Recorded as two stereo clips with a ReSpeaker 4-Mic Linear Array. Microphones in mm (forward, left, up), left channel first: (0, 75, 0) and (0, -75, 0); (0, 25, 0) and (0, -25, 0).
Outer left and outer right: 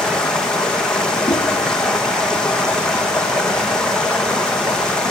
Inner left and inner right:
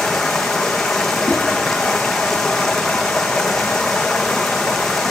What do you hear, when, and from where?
0.0 s running water: 5° left (ahead or behind), 1.3 m
1.3 s a whoosh: 5° right (ahead or behind), 7 m